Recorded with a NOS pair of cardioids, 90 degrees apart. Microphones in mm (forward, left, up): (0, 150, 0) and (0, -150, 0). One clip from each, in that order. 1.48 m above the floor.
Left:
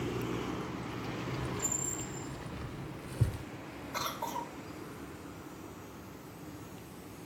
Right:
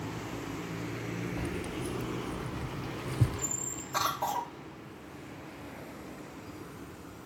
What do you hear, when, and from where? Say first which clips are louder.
1.4 s keys jangling: even; 45° right, 1.5 m; by 3.5 s 5° right, 0.6 m
3.9 s a cough: right 6 dB; 40° right, 0.9 m